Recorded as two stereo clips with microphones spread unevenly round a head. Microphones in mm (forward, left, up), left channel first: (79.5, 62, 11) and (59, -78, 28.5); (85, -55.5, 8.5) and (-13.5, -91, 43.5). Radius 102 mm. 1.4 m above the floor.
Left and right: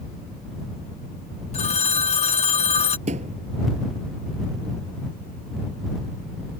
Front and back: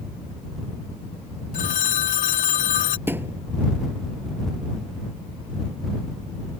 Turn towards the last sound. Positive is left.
turn(degrees=-115)